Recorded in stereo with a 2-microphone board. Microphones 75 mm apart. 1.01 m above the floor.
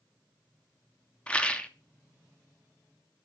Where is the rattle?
15° left (ahead or behind), 1.2 m.